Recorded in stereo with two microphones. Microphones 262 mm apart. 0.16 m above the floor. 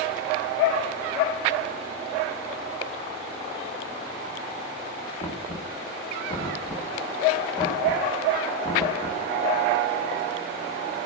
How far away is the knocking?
About 1.2 m.